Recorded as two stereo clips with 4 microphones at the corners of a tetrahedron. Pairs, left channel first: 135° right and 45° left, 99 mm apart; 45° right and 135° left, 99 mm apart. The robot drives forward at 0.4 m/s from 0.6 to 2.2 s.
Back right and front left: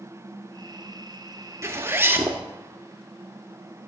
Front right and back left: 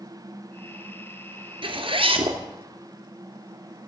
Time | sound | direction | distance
1.6 | a zipper | 105° left | 1.7 m